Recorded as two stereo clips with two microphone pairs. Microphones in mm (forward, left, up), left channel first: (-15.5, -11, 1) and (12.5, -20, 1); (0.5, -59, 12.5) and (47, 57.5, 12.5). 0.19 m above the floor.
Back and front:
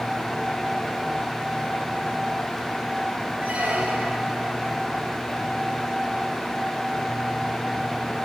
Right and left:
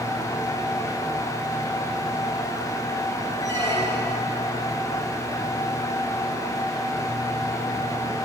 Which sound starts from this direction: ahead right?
A squeak, at 3.4 s.